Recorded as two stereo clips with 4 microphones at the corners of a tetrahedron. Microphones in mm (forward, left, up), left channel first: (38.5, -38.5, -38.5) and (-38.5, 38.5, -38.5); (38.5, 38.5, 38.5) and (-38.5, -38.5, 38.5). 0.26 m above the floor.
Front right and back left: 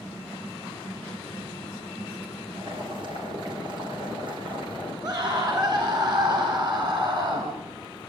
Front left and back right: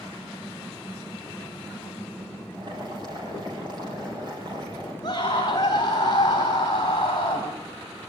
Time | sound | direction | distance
2.5 | boiling | 175° left | 6.5 m
5.0 | a scream | 90° left | 3 m